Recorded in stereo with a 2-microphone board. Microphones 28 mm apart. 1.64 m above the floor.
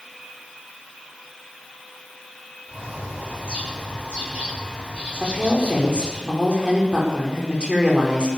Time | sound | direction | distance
2.7 | a bird | 45° right (ahead or behind) | 8 m
5.2 | a woman speaking | 35° right (ahead or behind) | 5 m